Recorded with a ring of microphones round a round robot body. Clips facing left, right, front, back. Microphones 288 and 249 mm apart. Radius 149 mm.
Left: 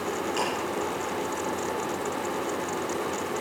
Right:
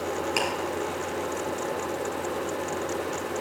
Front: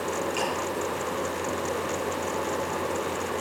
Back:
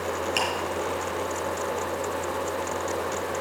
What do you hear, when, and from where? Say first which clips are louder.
0.4 s ticking: right 1 dB, even; 135° right, 4 m